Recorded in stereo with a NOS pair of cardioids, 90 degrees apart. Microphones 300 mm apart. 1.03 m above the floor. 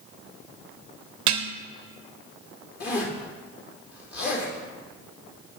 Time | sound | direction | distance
1.3 | dishes clattering | 70° right | 0.6 m
2.8 | a zipper | 55° left | 2.5 m